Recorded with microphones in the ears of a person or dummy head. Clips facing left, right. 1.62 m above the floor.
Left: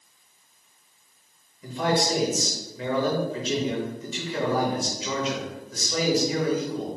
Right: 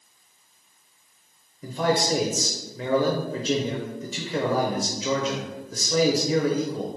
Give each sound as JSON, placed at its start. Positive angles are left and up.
{"t": 1.6, "sound": "a man speaking", "side_deg": -35, "distance_m": 0.6}